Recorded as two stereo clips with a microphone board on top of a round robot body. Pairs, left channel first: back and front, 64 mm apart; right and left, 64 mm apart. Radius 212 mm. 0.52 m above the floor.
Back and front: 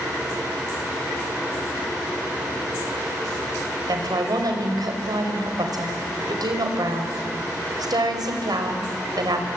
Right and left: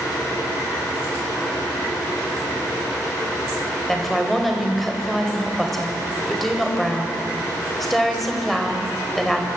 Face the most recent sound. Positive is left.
turn(degrees=-5)